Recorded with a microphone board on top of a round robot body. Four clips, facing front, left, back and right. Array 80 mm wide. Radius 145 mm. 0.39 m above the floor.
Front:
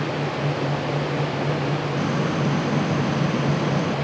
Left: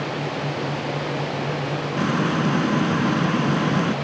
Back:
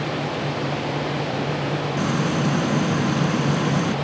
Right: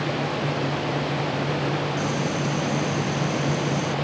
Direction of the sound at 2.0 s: 100° left.